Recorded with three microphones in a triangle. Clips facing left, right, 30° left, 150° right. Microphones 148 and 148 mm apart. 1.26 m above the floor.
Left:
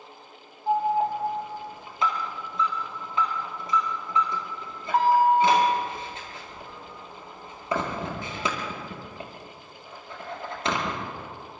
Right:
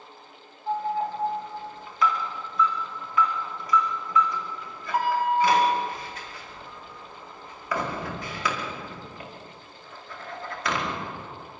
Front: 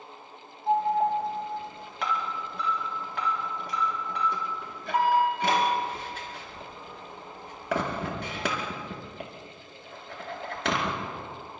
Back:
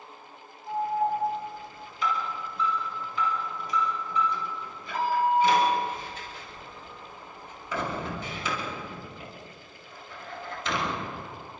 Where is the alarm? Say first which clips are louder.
Left 4 dB, front 3 dB; 25° left, 4.5 m.